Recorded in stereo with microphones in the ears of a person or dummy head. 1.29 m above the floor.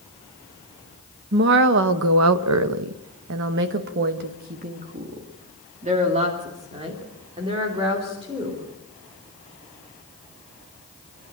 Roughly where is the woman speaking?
Right.